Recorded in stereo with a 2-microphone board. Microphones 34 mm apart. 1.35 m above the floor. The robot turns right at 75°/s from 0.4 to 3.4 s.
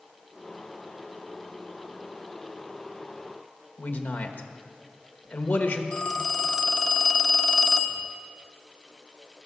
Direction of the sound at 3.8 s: 65° left (ahead or behind).